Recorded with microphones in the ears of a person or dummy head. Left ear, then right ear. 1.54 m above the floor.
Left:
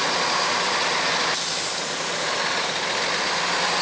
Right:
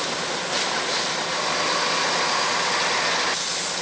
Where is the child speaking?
I don't hear a child speaking.